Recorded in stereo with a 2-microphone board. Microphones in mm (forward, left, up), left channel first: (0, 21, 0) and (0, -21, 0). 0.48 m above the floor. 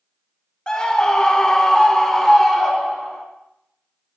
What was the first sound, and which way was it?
A scream, 20° left (ahead or behind).